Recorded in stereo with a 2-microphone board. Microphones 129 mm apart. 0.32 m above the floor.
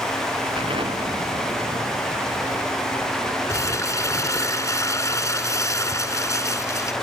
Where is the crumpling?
25° left (ahead or behind).